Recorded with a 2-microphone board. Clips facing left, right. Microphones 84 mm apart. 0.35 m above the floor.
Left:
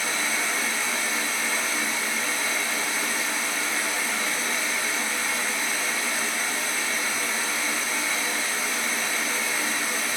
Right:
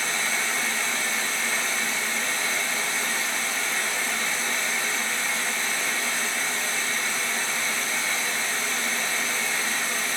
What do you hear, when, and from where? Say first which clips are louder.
0.0 s running water: even; 5° left (ahead or behind), 0.7 m